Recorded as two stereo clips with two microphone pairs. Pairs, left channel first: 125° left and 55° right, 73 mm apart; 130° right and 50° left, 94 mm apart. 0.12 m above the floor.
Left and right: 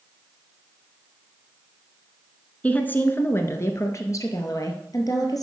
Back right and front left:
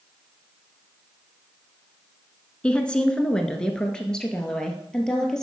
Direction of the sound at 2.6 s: 165° left.